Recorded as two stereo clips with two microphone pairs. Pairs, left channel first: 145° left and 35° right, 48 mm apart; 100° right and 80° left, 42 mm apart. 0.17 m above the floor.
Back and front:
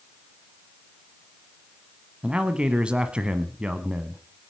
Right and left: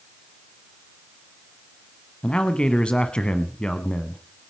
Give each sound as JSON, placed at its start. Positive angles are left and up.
{"t": 2.2, "sound": "a man speaking", "azimuth_deg": -70, "distance_m": 1.1}